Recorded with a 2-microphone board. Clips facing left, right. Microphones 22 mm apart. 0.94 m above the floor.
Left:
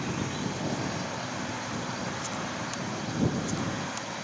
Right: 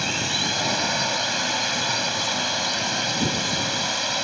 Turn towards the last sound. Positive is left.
turn(degrees=-85)